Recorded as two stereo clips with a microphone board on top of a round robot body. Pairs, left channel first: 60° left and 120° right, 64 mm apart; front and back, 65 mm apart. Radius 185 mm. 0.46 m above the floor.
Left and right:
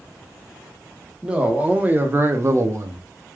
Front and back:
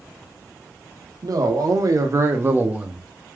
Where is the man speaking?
165° left, 1.3 m; by 3.0 s 100° right, 1.0 m.